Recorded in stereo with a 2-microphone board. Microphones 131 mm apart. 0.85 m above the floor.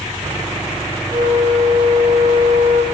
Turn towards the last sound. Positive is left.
turn(degrees=-40)  # may be behind; listen again after turning